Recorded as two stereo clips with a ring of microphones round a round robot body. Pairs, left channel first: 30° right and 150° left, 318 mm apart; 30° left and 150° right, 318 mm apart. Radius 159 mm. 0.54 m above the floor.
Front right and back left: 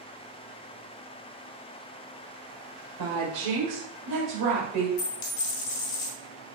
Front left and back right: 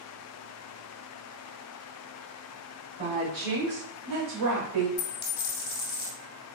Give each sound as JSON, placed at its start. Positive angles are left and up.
{"t": 3.0, "sound": "a woman speaking", "azimuth_deg": 150, "distance_m": 1.9}
{"t": 5.0, "sound": "a dropped coin", "azimuth_deg": 0, "distance_m": 1.7}